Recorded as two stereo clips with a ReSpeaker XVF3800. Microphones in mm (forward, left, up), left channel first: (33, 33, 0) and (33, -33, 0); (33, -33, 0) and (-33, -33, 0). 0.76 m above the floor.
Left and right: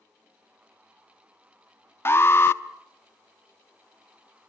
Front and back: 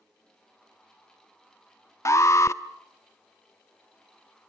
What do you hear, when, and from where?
2.0 s an alarm: 35° left, 0.8 m